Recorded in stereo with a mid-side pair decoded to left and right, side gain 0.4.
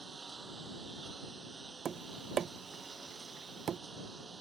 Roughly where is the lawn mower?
Ahead right.